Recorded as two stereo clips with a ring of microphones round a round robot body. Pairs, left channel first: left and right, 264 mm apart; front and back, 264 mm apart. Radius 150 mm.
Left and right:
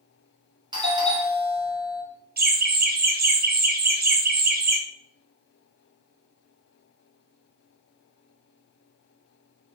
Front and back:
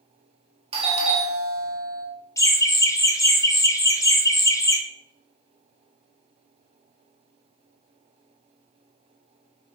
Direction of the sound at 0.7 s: 140° right.